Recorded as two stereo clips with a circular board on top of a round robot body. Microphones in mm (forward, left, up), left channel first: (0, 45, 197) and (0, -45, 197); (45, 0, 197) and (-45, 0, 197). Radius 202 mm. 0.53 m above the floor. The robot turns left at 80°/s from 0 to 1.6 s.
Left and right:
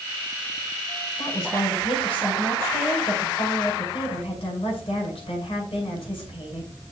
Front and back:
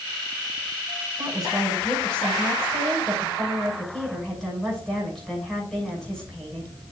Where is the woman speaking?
115° left, 6 m; by 6.7 s 85° left, 6 m.